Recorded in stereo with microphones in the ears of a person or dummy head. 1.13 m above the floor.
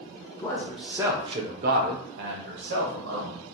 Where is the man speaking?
15° left (ahead or behind), 0.6 m; by 3.4 s 55° right (ahead or behind), 1.3 m.